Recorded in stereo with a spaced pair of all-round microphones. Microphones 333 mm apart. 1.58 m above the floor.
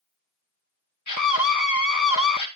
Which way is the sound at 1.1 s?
65° left (ahead or behind).